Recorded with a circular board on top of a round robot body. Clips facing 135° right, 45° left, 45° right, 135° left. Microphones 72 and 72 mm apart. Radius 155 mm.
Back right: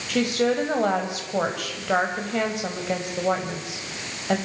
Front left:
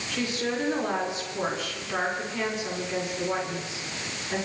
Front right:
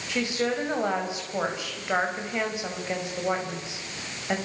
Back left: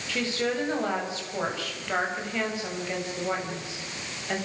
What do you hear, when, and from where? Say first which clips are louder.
0.1 s a woman speaking: back right 8 dB, front right 1 dB; 115° right, 5.5 m